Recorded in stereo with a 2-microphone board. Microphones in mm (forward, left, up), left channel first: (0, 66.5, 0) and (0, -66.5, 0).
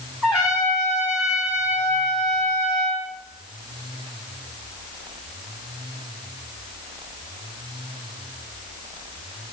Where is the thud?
I don't hear a thud.